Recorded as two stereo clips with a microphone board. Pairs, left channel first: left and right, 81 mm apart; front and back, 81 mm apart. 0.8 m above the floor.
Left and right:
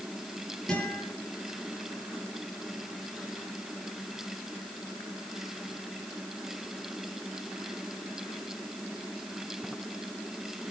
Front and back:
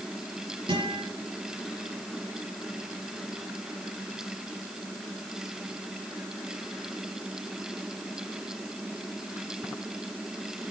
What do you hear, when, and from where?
0.7 s a guitar: 175° left, 8 m